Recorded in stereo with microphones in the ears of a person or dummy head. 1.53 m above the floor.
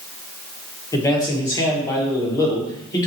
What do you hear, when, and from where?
0.9 s a man speaking: 20° left (ahead or behind), 1.2 m